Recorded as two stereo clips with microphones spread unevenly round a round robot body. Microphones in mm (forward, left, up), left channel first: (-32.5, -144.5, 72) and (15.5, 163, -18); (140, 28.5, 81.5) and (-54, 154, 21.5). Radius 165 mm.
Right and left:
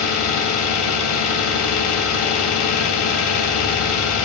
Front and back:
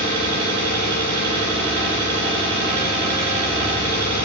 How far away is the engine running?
About 2 m.